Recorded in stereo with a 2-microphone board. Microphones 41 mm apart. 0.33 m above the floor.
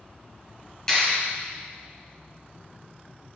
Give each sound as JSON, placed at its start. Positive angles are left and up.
{"t": 0.9, "sound": "a clap", "side_deg": 15, "distance_m": 2.5}